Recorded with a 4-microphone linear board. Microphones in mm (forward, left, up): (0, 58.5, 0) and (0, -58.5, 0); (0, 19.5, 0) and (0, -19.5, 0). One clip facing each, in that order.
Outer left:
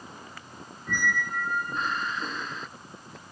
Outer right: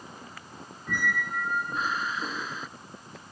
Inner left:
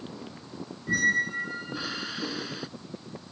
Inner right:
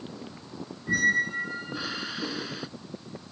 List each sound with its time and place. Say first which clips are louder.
0.9 s a squeak: outer left 1 dB, inner right 1 dB; 5° right (ahead or behind)